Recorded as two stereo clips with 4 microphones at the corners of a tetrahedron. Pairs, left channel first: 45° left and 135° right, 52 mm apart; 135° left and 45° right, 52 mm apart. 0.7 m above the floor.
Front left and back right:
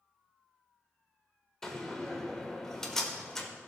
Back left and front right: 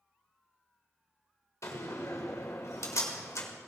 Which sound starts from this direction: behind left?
A door slam, at 1.6 s.